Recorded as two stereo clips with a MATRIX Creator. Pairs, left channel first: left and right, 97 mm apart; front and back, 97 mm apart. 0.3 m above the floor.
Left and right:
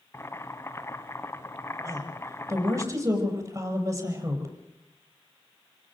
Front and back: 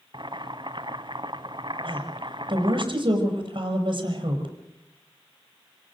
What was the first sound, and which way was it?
Boiling, 150° left.